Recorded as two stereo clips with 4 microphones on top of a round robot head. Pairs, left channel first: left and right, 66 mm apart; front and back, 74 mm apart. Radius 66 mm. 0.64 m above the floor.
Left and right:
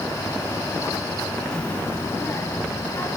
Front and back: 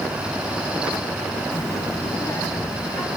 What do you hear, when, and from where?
1.5 s a child speaking: 20° left, 0.7 m; by 3.1 s 40° left, 2.5 m